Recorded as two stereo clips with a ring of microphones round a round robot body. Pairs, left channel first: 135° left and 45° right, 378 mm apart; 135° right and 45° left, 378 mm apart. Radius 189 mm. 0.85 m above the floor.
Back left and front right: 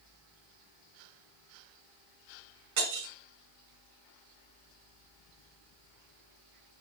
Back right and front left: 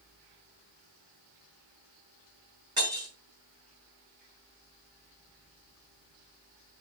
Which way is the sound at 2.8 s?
35° right.